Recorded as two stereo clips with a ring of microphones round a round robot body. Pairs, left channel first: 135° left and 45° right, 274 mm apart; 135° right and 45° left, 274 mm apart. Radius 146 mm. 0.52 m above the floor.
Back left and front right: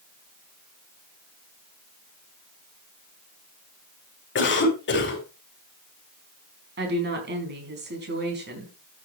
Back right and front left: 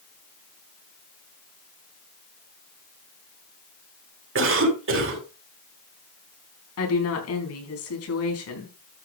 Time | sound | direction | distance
4.3 | a cough | 85° left | 4 m
6.8 | a woman speaking | 100° right | 4.5 m